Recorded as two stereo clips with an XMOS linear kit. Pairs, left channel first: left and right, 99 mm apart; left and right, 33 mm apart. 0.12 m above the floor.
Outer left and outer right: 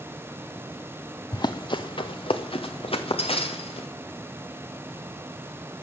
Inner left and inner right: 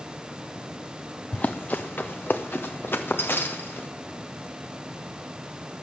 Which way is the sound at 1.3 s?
45° left (ahead or behind).